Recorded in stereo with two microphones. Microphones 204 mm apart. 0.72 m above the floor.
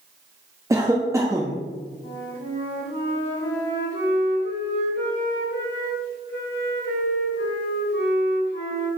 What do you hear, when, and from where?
0.7 s a cough: 15° right (ahead or behind), 0.6 m
2.0 s a flute: 65° left (ahead or behind), 1.9 m